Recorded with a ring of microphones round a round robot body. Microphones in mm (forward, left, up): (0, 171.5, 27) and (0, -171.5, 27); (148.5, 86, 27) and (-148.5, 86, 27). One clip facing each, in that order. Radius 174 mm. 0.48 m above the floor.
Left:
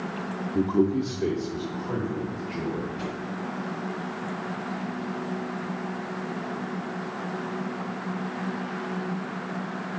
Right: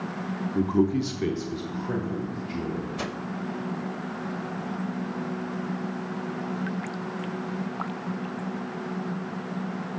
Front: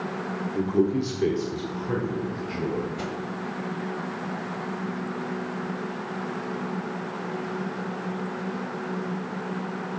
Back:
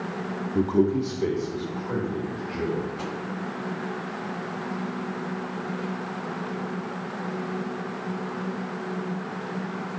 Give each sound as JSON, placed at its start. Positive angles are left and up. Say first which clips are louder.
{"t": 0.6, "sound": "a man speaking", "louder": "left 1 dB, back 1 dB", "azimuth_deg": 170, "distance_m": 0.8}
{"t": 3.0, "sound": "a whoosh", "louder": "even, front 1 dB", "azimuth_deg": -70, "distance_m": 0.8}